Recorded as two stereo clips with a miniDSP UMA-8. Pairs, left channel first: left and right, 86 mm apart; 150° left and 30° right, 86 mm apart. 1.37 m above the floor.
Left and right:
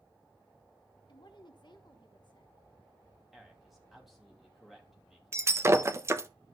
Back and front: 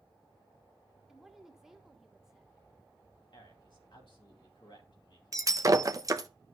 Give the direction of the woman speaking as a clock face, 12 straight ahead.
10 o'clock.